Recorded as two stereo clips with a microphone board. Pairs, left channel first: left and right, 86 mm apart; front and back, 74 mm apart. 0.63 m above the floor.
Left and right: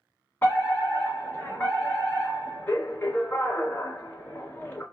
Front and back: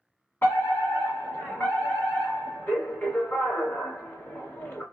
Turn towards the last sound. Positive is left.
turn(degrees=35)